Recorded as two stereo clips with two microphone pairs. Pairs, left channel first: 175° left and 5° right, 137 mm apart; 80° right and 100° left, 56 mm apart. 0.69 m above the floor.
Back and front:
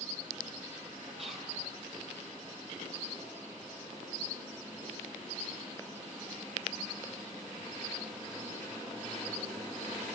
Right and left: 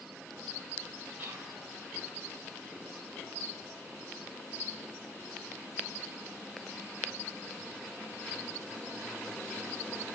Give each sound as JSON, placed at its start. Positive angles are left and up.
{"t": 1.2, "sound": "whispering", "azimuth_deg": 35, "distance_m": 3.0}